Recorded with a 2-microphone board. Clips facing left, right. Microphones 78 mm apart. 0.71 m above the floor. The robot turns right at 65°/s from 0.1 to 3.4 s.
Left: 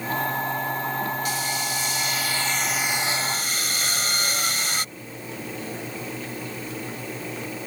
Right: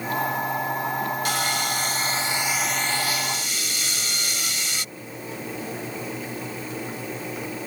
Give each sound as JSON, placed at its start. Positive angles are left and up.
{"t": 1.2, "sound": "sawing", "azimuth_deg": -95}